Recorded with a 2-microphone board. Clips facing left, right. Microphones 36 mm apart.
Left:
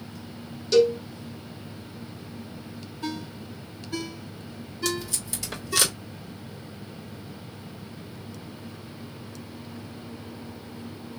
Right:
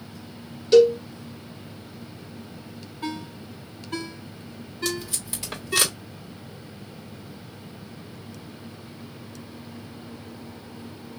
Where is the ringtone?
45° right (ahead or behind), 2.0 m.